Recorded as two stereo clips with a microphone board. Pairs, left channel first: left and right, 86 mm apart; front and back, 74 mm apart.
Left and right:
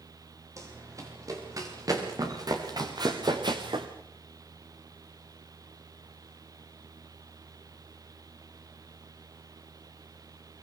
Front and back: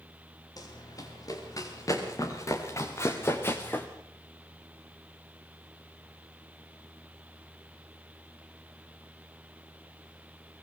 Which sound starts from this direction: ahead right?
Running footsteps, at 0.6 s.